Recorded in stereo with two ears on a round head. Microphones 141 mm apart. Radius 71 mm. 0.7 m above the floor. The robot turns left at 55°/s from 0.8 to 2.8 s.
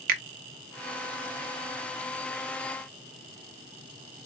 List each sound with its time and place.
0.1 s a finger snap: 55° right (ahead or behind), 0.6 m